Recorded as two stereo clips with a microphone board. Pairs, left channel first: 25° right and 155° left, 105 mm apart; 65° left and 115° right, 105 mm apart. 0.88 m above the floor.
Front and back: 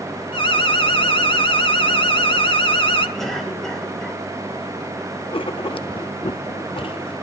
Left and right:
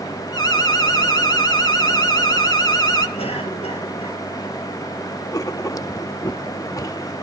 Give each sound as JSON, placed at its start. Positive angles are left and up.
{"t": 0.3, "sound": "an alarm", "azimuth_deg": 15, "distance_m": 1.4}
{"t": 3.2, "sound": "a cough", "azimuth_deg": 65, "distance_m": 5.0}
{"t": 5.3, "sound": "writing", "azimuth_deg": 10, "distance_m": 0.6}